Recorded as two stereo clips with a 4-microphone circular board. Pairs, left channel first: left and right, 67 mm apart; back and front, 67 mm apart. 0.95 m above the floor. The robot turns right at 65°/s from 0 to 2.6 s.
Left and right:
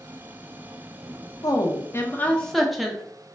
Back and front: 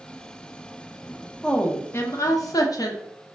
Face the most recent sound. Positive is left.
turn(degrees=180)